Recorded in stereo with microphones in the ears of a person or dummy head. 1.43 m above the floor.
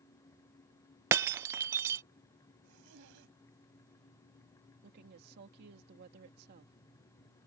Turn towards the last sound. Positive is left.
turn(degrees=-60)  # may be behind; listen again after turning